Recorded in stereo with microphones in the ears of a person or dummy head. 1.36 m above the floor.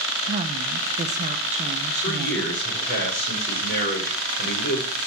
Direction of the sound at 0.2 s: 35° right (ahead or behind).